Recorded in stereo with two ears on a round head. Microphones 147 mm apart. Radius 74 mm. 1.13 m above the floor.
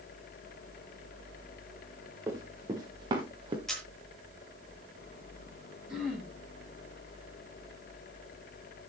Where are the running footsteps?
20° right (ahead or behind), 5.5 m; by 3.6 s 35° right (ahead or behind), 4.5 m.